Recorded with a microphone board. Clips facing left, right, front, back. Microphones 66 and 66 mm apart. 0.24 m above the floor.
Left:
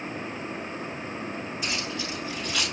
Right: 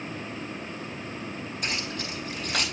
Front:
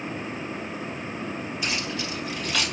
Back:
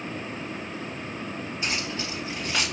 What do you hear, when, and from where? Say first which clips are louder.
1.6 s keys jangling: even, even; 120° right, 4.5 m; by 2.6 s 115° right, 5 m